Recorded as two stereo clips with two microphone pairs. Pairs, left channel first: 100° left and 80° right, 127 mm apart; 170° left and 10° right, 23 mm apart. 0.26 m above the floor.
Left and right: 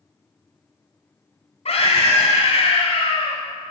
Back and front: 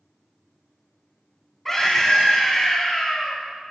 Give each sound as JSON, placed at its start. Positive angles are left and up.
{"t": 1.6, "sound": "a scream", "azimuth_deg": 95, "distance_m": 1.9}